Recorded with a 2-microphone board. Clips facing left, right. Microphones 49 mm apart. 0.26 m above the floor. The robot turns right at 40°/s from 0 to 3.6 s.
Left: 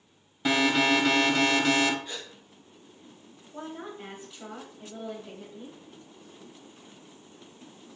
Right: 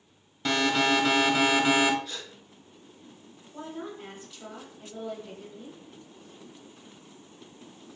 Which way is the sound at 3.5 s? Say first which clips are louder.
Right 1 dB; 15° left (ahead or behind).